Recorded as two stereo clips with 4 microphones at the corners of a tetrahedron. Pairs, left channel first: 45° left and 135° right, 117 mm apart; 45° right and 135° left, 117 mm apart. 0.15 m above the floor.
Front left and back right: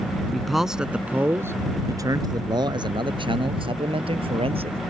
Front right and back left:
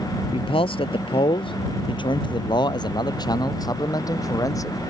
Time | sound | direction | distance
0.3 | a man speaking | 40° right | ?